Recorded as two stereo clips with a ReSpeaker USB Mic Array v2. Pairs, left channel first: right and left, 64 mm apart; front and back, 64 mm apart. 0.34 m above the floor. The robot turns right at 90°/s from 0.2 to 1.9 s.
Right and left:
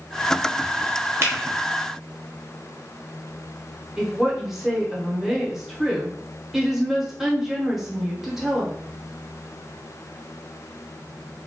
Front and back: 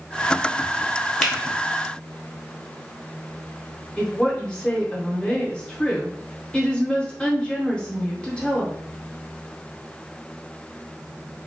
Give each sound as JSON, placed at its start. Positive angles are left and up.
{"t": 1.2, "sound": "a finger snap", "azimuth_deg": 85, "distance_m": 0.9}
{"t": 4.0, "sound": "a woman speaking", "azimuth_deg": 20, "distance_m": 0.9}